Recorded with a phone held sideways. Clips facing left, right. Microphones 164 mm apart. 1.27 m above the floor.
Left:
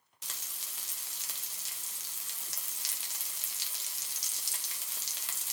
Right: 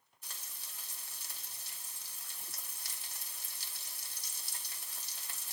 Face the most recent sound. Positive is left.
turn(degrees=70)  # may be behind; listen again after turning